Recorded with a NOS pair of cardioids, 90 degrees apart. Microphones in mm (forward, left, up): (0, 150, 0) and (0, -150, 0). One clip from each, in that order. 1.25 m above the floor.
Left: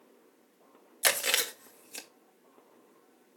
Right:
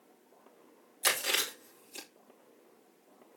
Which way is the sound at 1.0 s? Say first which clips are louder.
Left 2 dB; 50° left.